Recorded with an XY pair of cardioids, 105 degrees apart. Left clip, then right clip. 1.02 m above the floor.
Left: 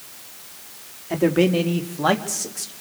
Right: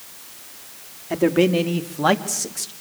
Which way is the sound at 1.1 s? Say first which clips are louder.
Right 1 dB; 10° right.